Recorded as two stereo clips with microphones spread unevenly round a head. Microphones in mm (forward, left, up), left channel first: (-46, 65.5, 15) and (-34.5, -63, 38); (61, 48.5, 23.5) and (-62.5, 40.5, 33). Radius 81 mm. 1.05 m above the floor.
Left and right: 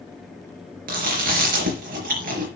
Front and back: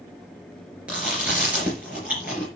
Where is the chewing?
95° right, 4 m.